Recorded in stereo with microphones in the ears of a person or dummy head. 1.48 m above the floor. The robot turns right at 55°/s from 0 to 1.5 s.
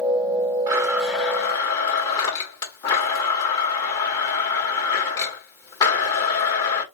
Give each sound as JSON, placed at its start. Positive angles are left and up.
{"t": 0.7, "sound": "a blender", "azimuth_deg": -20, "distance_m": 1.7}